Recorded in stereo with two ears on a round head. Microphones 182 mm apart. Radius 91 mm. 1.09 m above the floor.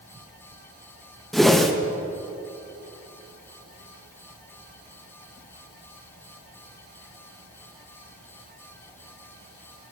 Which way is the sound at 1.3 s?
Centre (ahead or behind).